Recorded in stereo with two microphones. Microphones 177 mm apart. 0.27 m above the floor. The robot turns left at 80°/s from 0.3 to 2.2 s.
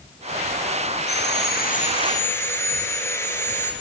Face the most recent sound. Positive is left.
turn(degrees=15)